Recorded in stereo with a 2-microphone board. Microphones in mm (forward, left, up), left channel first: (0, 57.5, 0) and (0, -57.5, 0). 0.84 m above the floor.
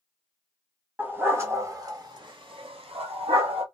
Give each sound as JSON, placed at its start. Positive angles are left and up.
{"t": 1.0, "sound": "a dog barking", "side_deg": -15, "distance_m": 1.2}